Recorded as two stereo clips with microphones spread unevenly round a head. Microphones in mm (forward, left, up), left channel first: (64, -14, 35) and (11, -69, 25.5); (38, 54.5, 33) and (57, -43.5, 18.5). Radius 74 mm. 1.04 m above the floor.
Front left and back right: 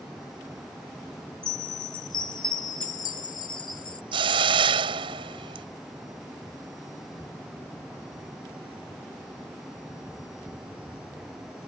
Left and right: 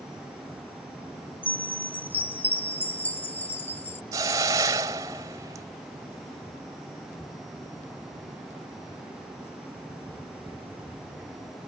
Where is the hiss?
150° right.